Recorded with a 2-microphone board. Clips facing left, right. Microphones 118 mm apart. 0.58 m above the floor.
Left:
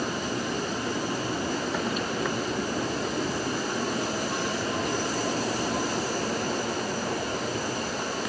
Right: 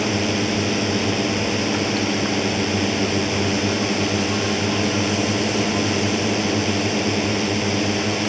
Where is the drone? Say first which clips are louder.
Right 8 dB; 85° right.